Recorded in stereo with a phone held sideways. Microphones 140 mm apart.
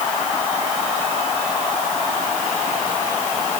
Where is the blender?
No blender in this recording.